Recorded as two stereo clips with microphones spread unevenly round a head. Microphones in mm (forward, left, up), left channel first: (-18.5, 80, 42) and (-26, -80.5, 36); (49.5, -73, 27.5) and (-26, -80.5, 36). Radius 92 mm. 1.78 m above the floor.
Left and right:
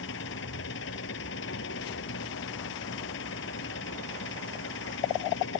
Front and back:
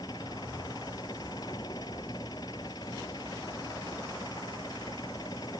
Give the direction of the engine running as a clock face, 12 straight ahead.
10 o'clock.